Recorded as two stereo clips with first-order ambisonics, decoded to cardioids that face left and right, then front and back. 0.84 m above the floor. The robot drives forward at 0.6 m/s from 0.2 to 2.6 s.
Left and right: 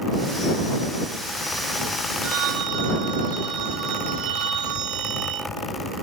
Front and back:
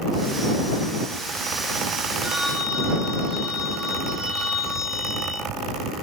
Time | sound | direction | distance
2.2 | a phone ringing | 95° right | 5 m